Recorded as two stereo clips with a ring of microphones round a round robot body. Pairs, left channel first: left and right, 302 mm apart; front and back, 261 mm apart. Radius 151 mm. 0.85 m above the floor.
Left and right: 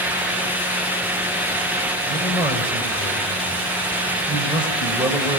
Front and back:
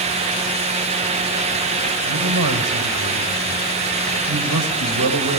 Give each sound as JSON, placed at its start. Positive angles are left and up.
{"t": 2.1, "sound": "a man speaking", "azimuth_deg": -165, "distance_m": 4.0}